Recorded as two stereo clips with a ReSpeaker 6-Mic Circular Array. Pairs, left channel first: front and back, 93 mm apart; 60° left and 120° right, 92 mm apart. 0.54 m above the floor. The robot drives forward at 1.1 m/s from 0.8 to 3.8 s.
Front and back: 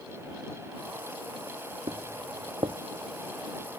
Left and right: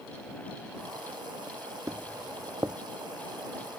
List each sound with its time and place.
1.9 s footsteps: 175° right; by 2.8 s straight behind